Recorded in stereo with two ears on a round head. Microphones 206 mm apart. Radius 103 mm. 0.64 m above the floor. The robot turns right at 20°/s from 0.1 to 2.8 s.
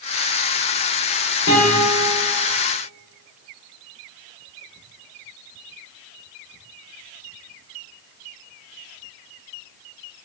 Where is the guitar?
60° left (ahead or behind), 0.7 m; by 2.2 s 45° left (ahead or behind), 0.7 m.